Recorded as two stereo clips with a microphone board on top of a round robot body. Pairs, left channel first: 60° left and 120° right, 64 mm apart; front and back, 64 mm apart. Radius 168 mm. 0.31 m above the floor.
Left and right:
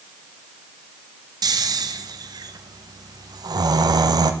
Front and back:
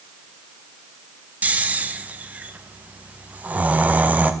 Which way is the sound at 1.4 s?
115° right.